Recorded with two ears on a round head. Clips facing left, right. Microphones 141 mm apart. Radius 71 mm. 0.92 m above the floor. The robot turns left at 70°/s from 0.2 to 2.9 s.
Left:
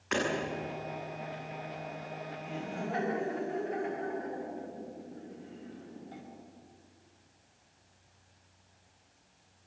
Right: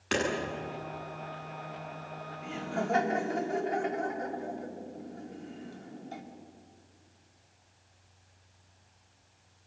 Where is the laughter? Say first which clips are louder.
Right 6 dB; 85° right, 4.5 m; by 6.2 s 55° right (ahead or behind), 4.5 m.